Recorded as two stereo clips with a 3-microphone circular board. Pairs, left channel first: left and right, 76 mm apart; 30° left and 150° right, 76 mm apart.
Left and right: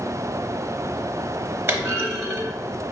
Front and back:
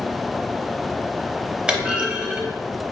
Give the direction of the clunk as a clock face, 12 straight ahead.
3 o'clock.